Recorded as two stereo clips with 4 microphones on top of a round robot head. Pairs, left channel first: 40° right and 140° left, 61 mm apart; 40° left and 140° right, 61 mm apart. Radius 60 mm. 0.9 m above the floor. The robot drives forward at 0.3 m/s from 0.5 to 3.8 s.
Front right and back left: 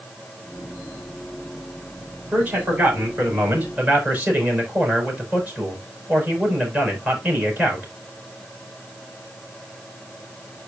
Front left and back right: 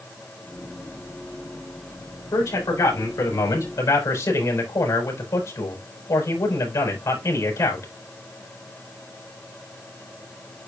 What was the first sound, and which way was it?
A man speaking, 75° left.